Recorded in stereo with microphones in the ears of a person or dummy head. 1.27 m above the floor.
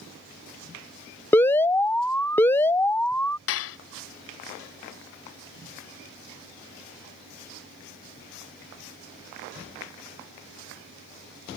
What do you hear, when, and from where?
1.3 s an alarm: 10° left (ahead or behind)
3.5 s dishes clattering: 65° left (ahead or behind)